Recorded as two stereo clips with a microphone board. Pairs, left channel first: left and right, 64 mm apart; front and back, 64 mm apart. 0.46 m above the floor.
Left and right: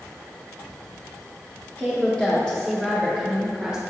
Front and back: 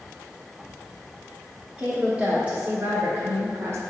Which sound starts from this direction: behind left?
A woman speaking, at 1.8 s.